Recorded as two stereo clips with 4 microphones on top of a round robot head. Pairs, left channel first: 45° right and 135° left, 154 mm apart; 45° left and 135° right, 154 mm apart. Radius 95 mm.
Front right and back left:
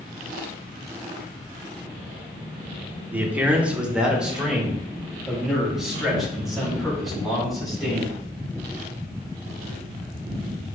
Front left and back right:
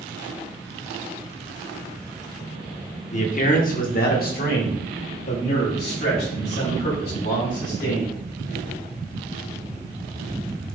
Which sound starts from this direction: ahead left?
A man speaking, at 3.1 s.